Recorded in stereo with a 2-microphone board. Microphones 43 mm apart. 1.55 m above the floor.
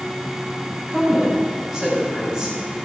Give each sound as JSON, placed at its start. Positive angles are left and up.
{"t": 0.9, "sound": "a woman speaking", "side_deg": -20, "distance_m": 4.0}